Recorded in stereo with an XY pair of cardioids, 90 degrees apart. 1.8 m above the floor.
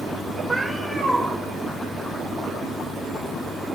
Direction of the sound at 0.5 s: 15° right.